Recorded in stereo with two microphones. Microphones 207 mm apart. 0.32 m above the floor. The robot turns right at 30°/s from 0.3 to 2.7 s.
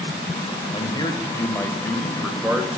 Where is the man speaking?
135° left, 1.2 m; by 2.7 s 165° right, 1.2 m.